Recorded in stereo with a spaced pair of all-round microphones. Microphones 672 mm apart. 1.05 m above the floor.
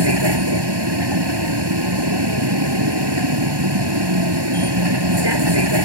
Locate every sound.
0.0 s a vehicle: 35° right (ahead or behind)